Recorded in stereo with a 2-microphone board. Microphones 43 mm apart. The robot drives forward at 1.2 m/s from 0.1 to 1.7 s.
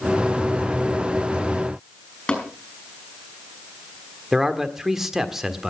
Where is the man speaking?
10° right (ahead or behind), 1.4 m.